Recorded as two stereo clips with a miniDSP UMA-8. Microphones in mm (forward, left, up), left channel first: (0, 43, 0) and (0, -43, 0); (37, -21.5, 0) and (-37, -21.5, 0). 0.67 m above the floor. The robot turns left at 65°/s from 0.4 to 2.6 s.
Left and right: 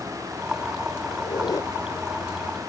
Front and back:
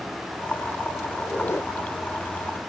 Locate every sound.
1.1 s a squeak: 80° left; by 1.7 s 40° left